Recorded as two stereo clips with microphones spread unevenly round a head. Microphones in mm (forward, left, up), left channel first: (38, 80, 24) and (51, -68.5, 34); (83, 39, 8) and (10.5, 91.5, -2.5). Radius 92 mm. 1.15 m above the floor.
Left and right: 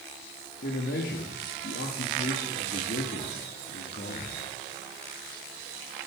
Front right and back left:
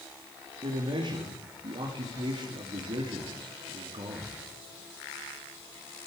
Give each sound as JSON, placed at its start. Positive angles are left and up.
{"t": 0.6, "sound": "a man speaking", "azimuth_deg": 120, "distance_m": 2.5}